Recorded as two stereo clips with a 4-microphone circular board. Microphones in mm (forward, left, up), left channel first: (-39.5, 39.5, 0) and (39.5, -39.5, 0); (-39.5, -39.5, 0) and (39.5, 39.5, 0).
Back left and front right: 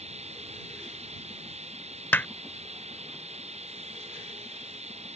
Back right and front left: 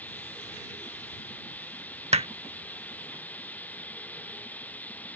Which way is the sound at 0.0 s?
60° right.